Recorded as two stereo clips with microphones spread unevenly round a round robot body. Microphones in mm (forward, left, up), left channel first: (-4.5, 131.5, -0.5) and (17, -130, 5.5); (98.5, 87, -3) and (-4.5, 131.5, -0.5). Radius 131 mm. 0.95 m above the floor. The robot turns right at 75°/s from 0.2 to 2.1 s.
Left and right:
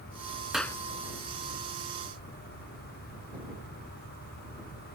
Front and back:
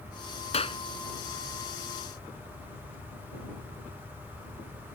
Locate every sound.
0.5 s a clap: straight ahead; by 0.8 s 20° left